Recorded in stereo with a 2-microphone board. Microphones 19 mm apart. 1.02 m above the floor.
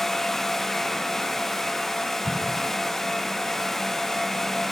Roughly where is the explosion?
Right.